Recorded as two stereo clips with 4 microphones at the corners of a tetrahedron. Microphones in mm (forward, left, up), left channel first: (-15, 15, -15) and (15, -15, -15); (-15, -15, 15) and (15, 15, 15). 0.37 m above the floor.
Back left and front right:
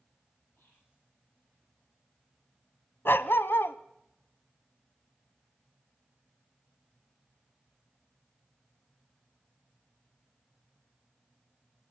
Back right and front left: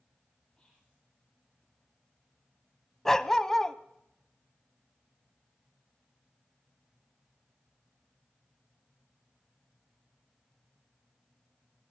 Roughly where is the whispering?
Behind left.